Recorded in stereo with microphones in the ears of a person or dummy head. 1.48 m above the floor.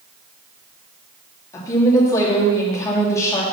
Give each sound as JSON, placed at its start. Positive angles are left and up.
{"t": 1.5, "sound": "a woman speaking", "side_deg": 15, "distance_m": 2.5}